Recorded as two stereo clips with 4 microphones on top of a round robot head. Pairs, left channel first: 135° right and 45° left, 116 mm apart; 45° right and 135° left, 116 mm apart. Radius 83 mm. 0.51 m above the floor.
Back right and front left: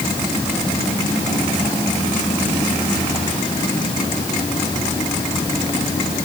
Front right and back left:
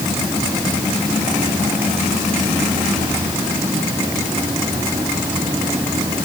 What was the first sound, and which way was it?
Only background noise.